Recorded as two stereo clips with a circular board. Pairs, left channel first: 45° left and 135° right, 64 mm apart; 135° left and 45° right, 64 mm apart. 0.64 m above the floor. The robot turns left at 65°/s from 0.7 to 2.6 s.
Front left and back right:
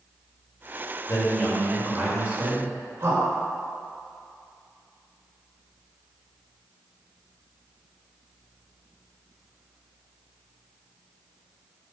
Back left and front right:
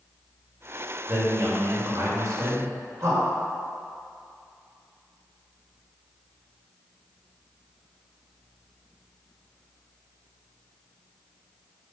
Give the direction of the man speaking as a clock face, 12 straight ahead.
12 o'clock.